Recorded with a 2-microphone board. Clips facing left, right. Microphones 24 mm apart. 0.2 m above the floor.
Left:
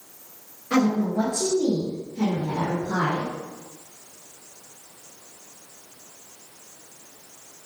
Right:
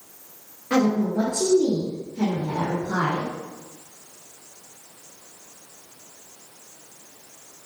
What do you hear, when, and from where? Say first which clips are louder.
0.7 s a woman speaking: right 1 dB; 20° right (ahead or behind), 4 m; by 3.3 s 55° right (ahead or behind), 3.5 m